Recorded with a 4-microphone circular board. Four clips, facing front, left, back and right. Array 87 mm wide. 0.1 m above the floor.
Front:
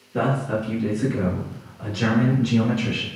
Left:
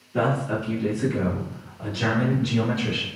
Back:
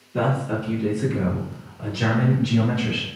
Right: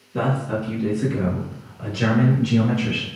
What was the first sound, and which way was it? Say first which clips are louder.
A man speaking: even, even; 50° left.